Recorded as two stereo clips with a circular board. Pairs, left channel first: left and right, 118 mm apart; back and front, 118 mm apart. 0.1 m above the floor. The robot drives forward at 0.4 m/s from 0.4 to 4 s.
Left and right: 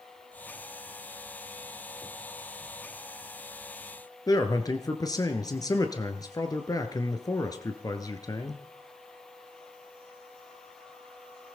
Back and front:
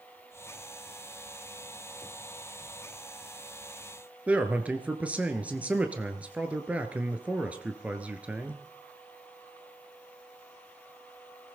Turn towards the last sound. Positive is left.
turn(degrees=70)